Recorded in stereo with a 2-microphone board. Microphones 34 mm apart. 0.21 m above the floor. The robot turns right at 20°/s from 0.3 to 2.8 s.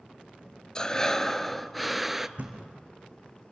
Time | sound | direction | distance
0.8 | breathing | 155° left | 0.5 m
2.4 | a thud | 40° right (ahead or behind) | 3 m